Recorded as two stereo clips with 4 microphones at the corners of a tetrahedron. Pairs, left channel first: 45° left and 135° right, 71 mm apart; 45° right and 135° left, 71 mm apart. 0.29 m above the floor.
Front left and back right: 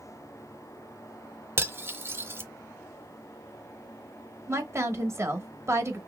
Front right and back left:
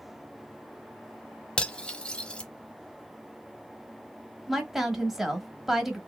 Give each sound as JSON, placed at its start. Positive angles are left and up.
{"t": 1.6, "sound": "cutlery clinking", "azimuth_deg": -110, "distance_m": 0.6}
{"t": 4.5, "sound": "a woman speaking", "azimuth_deg": -145, "distance_m": 1.2}